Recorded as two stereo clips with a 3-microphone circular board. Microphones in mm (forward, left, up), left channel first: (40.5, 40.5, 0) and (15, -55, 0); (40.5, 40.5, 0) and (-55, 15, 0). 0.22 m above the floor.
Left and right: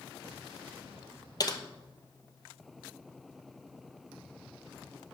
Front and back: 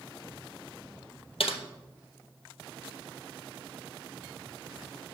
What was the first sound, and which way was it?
Typing on a keyboard, 25° left.